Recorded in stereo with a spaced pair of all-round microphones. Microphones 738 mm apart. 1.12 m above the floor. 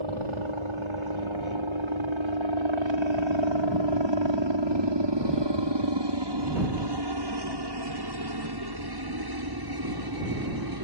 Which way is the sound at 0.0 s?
45° right (ahead or behind).